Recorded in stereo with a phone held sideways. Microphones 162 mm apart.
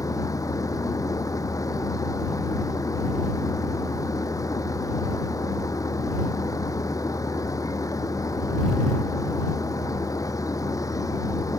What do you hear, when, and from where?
0.0 s a machine running: 20° left (ahead or behind)